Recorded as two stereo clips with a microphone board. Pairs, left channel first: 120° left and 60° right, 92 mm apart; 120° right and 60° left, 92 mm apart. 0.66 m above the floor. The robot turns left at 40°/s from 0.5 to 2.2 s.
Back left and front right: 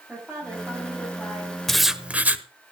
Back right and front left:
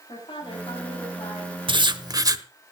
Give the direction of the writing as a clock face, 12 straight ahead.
11 o'clock.